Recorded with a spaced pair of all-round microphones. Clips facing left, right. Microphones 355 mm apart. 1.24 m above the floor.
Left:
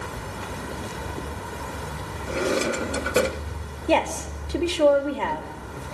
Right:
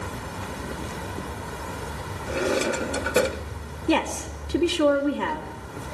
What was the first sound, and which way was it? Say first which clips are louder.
A drawer: even; centre (ahead or behind).